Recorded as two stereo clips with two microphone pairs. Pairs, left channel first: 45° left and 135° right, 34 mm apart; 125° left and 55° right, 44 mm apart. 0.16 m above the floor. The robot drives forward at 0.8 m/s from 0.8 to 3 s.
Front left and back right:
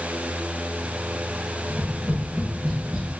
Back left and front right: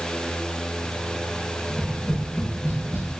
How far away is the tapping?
About 1.2 m.